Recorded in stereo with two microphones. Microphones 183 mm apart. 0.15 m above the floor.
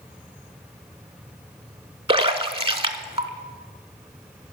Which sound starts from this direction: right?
A splash, at 2.1 s.